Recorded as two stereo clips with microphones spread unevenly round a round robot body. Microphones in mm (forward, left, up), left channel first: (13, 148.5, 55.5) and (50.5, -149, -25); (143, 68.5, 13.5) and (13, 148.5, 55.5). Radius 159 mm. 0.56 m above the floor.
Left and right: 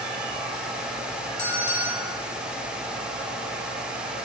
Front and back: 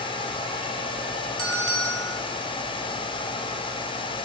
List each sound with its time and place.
1.4 s a bell: 55° left, 6.5 m